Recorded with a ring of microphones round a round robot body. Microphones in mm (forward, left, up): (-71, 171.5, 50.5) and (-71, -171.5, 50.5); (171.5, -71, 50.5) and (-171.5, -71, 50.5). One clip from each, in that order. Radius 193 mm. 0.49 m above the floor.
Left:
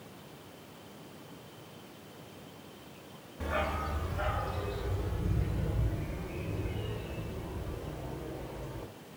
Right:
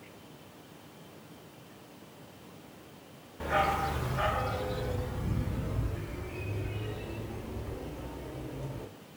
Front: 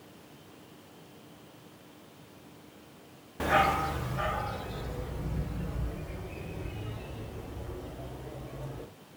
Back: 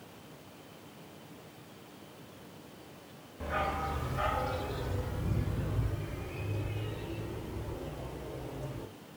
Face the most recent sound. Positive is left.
turn(degrees=-110)